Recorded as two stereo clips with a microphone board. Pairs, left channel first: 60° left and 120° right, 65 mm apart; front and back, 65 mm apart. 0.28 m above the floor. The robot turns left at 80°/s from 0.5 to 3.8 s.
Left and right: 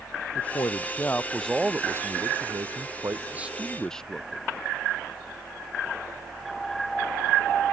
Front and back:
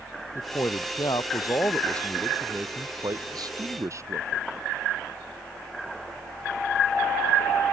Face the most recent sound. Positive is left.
turn(degrees=140)